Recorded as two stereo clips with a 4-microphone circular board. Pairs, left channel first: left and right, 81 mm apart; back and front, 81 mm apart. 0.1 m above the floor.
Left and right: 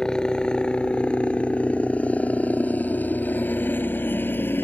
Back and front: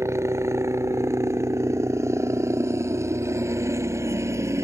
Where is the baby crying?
I don't hear a baby crying.